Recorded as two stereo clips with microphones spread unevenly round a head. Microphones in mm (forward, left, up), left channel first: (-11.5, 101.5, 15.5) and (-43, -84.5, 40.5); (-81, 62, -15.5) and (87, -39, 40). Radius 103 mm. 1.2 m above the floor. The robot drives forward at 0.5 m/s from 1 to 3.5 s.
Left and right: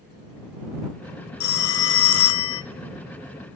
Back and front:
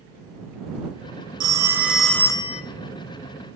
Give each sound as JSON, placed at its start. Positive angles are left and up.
{"t": 1.4, "sound": "a phone ringing", "azimuth_deg": 35, "distance_m": 0.7}